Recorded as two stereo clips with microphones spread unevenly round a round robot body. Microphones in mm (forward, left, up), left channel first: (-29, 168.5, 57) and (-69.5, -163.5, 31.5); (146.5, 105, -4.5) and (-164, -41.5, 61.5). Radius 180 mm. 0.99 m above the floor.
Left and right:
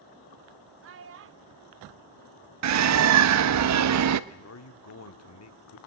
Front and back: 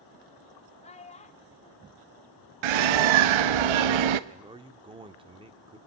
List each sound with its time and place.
0.8 s a child speaking: 45° right, 0.7 m
2.6 s a bird: 140° right, 1.1 m
4.3 s a man speaking: 130° left, 2 m